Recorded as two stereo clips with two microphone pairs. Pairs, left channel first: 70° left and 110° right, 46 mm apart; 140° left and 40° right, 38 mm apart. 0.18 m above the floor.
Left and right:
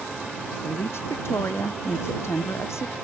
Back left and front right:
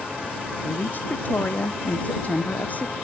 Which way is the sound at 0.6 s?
100° left.